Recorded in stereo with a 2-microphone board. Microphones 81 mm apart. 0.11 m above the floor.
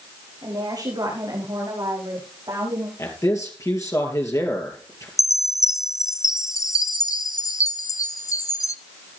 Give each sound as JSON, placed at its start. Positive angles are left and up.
{"t": 0.4, "sound": "a woman speaking", "side_deg": -55, "distance_m": 8.5}
{"t": 3.0, "sound": "a man speaking", "side_deg": 40, "distance_m": 3.0}
{"t": 5.2, "sound": "a chime", "side_deg": 40, "distance_m": 0.6}